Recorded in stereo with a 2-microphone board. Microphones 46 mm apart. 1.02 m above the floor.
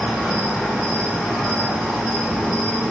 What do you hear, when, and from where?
0.0 s an insect: 5° right (ahead or behind), 3 m